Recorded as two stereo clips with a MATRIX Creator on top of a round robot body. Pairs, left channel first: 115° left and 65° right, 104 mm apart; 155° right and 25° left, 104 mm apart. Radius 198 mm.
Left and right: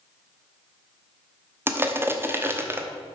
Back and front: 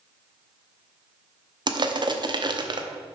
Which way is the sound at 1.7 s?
5° right.